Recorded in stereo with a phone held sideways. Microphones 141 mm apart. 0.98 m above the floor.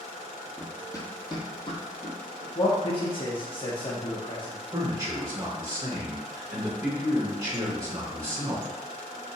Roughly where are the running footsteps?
Centre.